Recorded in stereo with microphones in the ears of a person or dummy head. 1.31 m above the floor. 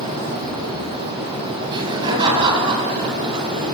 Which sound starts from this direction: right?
Laughter, at 1.7 s.